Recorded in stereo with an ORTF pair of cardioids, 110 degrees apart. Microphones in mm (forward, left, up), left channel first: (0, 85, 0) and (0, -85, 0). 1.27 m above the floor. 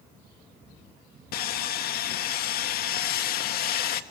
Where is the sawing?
65° left, 1.7 m.